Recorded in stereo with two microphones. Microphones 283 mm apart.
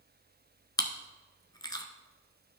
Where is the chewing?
15° left (ahead or behind), 0.8 m.